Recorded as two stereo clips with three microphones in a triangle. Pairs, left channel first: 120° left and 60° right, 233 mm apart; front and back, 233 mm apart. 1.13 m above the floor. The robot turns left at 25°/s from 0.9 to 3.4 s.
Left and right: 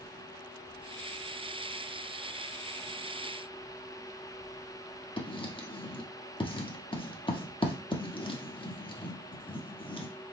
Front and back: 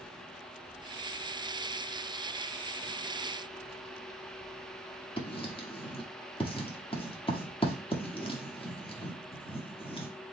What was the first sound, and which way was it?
Writing, 60° left.